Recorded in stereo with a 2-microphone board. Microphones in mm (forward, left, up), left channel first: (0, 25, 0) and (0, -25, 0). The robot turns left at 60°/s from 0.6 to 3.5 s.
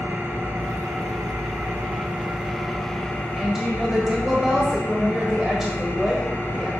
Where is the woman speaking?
5° right (ahead or behind), 1.3 m.